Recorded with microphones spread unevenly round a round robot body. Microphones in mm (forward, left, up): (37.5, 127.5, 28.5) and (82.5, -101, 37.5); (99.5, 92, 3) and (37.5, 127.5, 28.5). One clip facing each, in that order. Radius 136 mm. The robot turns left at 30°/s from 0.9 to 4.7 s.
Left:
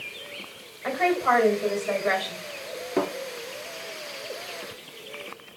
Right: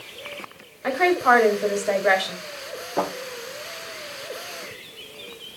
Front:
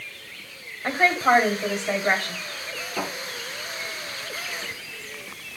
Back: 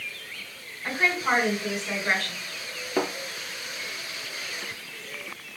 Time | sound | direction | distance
0.8 | a woman speaking | 45° right | 2 m
3.0 | a thud | 130° left | 3.5 m